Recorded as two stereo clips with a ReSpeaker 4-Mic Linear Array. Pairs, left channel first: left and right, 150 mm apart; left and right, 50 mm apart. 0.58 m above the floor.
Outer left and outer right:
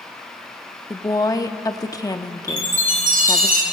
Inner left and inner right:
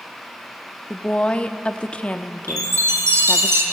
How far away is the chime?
About 3 m.